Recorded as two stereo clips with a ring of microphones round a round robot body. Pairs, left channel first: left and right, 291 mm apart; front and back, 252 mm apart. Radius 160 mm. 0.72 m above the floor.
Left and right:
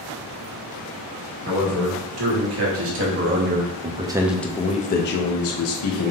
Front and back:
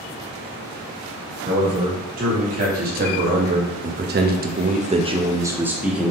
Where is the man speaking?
120° right, 2 m; by 6.1 s 90° left, 1.2 m.